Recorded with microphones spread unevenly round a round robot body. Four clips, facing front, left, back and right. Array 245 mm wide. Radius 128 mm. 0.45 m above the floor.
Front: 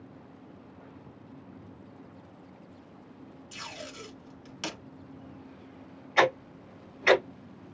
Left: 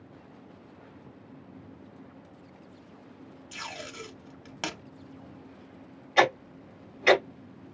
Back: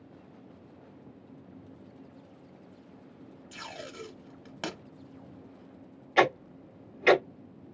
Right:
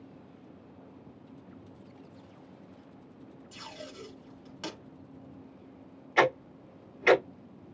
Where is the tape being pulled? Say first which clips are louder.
Left 5 dB, back 1 dB; 130° left, 0.8 m.